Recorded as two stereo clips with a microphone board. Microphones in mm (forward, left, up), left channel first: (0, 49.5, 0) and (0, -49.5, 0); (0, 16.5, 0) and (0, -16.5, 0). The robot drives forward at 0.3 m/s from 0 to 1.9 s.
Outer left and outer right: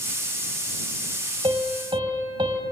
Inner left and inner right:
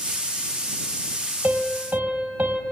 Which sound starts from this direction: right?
A piano, at 1.4 s.